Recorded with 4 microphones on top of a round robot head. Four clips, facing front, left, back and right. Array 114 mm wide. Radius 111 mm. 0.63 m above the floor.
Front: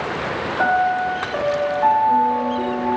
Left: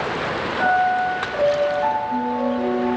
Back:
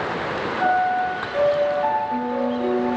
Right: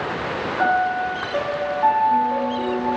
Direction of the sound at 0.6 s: 15° right.